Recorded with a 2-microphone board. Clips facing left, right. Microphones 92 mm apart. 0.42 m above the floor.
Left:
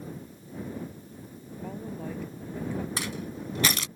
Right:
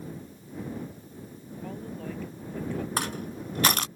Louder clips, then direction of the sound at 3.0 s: Right 2 dB; 55° right (ahead or behind).